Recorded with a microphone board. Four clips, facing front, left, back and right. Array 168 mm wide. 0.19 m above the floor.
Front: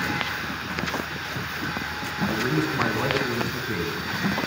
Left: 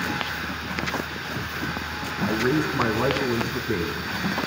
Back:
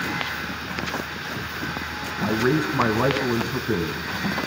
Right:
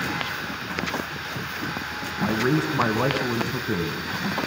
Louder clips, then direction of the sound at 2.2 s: Even, back 3 dB; 150° right.